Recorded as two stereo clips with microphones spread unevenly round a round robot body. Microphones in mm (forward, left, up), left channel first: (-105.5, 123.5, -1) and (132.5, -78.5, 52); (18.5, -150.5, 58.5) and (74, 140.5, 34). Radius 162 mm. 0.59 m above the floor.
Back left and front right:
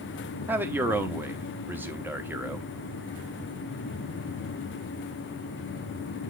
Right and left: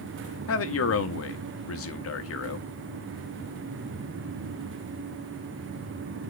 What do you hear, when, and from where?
0.5 s a man speaking: 130° right, 1.0 m